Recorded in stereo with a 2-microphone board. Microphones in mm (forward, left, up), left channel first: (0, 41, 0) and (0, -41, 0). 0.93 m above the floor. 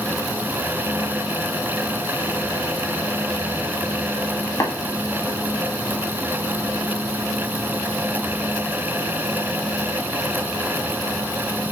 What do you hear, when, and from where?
4.6 s tapping: 40° left (ahead or behind), 1.7 m